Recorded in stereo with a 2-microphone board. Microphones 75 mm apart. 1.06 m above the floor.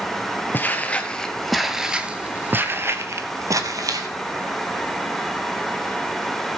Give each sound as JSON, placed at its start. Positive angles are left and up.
{"t": 0.5, "sound": "footsteps", "side_deg": 25, "distance_m": 1.5}